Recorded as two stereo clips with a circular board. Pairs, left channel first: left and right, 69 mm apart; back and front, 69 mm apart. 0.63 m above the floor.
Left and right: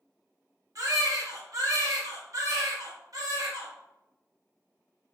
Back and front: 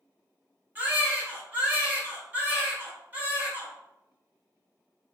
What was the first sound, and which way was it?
A baby crying, 60° right.